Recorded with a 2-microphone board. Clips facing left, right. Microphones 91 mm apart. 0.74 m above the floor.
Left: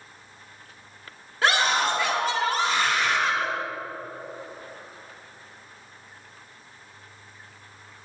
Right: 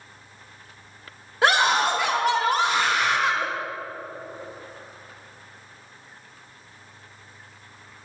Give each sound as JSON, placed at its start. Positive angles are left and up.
{"t": 1.4, "sound": "a scream", "side_deg": -15, "distance_m": 1.7}